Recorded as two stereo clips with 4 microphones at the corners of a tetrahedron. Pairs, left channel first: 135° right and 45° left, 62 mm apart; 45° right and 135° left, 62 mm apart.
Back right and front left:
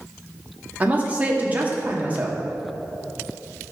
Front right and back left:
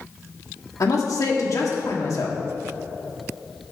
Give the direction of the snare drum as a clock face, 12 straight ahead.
No snare drum in this recording.